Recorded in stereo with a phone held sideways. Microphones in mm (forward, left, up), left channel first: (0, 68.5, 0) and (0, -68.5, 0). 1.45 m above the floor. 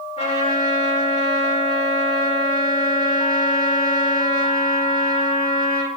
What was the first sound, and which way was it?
A trumpet, 55° left (ahead or behind).